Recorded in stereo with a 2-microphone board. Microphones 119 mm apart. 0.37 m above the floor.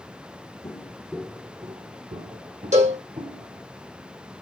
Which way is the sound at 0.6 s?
30° left (ahead or behind).